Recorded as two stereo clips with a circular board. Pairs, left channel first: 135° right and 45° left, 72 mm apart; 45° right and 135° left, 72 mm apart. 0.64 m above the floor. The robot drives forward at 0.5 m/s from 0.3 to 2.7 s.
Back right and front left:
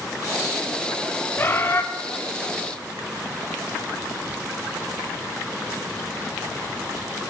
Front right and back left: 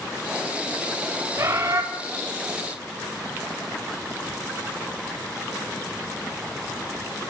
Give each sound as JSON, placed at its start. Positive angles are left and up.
{"t": 1.4, "sound": "a bird", "azimuth_deg": 175, "distance_m": 1.1}